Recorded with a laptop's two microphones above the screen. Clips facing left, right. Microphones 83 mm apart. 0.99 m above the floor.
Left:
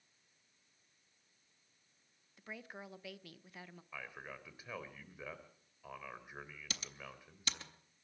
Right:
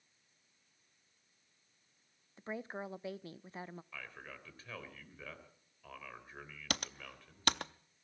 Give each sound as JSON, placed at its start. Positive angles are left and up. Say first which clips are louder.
{"t": 2.4, "sound": "a woman speaking", "louder": "right 7 dB", "side_deg": -30, "distance_m": 0.5}
{"t": 3.9, "sound": "a man speaking", "louder": "left 1 dB", "side_deg": 15, "distance_m": 3.5}
{"t": 6.7, "sound": "typing on a keyboard", "louder": "right 11 dB", "side_deg": -60, "distance_m": 0.6}